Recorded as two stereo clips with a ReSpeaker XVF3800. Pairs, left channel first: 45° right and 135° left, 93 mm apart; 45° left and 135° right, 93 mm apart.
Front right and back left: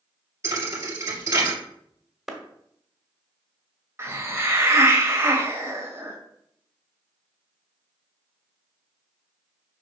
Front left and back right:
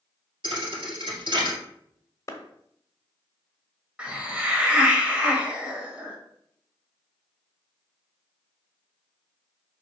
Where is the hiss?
160° left, 1.5 m.